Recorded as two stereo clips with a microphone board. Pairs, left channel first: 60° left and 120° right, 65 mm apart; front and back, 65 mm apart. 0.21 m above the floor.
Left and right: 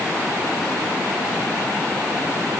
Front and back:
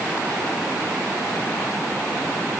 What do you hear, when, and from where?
Only background noise.